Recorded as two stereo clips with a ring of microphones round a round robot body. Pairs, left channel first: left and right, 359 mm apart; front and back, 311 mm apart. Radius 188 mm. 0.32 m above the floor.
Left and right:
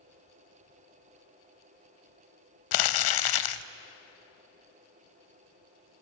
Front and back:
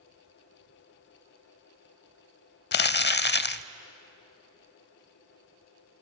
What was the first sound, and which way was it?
Crumpling, 60° left.